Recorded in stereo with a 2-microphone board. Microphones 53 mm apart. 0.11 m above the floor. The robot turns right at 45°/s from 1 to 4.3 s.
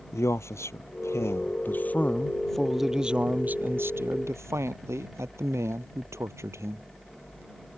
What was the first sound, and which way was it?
A man speaking, 105° left.